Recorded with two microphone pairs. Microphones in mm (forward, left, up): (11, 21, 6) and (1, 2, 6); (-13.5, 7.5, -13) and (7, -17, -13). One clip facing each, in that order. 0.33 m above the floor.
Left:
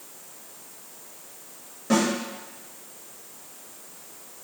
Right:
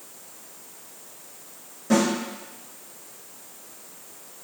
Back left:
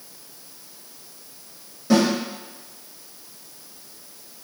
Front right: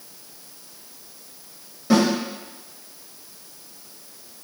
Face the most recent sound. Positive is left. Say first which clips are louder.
# right 1 dB, even
turn(degrees=20)